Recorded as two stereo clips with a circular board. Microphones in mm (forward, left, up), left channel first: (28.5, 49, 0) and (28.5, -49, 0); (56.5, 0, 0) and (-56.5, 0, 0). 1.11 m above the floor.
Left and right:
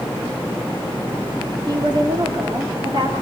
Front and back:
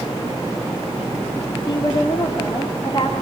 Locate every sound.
1.7 s a woman speaking: 50° right, 2.5 m